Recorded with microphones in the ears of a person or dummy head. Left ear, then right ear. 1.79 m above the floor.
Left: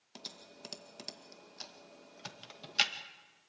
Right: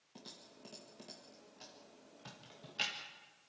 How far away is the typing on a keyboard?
About 2.0 m.